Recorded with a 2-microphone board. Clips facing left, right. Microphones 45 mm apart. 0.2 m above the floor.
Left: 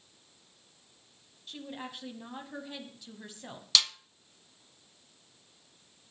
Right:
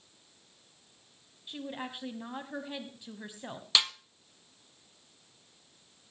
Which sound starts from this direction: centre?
A woman speaking, at 1.5 s.